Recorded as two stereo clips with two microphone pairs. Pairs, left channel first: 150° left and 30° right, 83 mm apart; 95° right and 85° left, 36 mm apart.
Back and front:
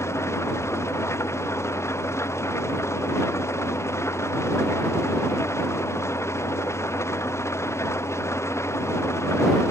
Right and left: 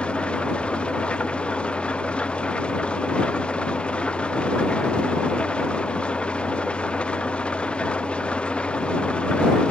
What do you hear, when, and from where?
0.0 s an engine running: 150° right